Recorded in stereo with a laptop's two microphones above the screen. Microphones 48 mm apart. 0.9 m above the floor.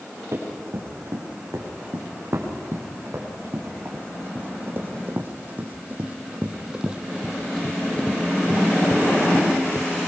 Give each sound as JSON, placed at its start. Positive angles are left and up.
{"t": 0.3, "sound": "running footsteps", "side_deg": -60, "distance_m": 5.5}